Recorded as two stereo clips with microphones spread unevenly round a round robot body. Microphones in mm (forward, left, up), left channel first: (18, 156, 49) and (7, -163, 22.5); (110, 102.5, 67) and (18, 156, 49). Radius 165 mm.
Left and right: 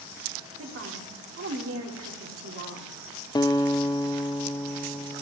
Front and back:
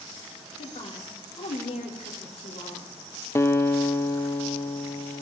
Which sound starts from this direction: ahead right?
A woman speaking, at 0.6 s.